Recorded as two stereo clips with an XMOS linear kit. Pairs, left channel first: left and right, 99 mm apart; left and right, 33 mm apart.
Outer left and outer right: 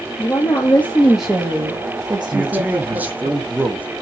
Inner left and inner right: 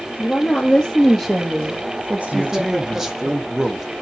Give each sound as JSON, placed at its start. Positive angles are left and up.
{"t": 0.2, "sound": "a woman speaking", "side_deg": 40, "distance_m": 0.8}
{"t": 2.3, "sound": "a man speaking", "side_deg": -15, "distance_m": 0.7}